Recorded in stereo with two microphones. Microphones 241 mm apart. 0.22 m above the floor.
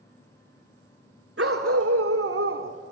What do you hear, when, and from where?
1.4 s a dog barking: 60° right (ahead or behind), 1.0 m; by 2.9 s 45° right (ahead or behind), 0.6 m